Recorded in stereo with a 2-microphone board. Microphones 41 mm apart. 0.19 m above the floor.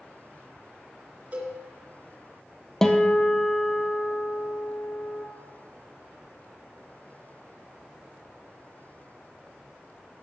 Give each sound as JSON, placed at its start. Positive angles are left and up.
{"t": 1.3, "sound": "a cowbell", "side_deg": -35, "distance_m": 3.0}
{"t": 2.8, "sound": "a guitar", "side_deg": 15, "distance_m": 1.3}